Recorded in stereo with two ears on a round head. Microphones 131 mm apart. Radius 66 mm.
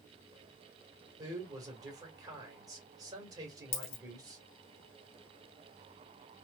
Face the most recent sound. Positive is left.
turn(degrees=70)  # may be behind; listen again after turning